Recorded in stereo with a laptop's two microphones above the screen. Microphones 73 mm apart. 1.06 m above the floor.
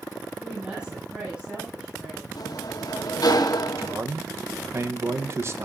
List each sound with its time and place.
0.4 s a woman speaking: 15° right (ahead or behind), 7 m
2.4 s a sliding door: 60° left (ahead or behind), 1.4 m
3.8 s a man speaking: 35° right (ahead or behind), 1.1 m